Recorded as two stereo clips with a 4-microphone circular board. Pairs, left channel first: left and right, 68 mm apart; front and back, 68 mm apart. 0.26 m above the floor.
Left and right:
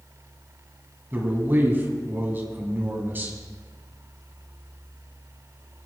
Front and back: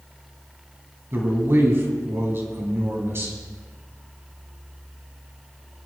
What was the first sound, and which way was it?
A man speaking, 140° right.